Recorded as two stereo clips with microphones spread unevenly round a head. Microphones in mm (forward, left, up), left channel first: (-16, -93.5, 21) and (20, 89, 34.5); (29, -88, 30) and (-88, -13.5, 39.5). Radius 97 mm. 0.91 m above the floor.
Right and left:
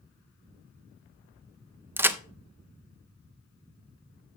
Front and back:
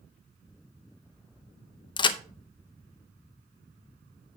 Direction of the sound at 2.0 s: Straight ahead.